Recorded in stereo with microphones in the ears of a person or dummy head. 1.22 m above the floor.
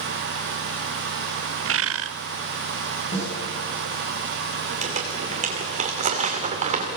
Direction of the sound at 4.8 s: 45° right (ahead or behind).